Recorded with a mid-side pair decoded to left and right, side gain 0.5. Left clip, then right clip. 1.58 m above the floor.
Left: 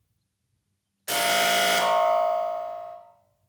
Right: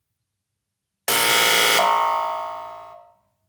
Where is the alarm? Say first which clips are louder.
Right 5 dB; 65° right, 0.7 m.